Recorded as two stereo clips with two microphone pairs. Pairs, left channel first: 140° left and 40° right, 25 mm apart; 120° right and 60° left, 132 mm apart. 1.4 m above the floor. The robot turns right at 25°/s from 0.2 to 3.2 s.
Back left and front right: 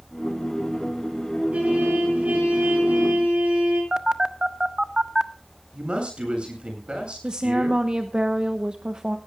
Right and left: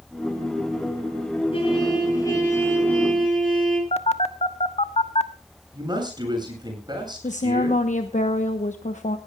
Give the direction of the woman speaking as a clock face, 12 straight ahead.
3 o'clock.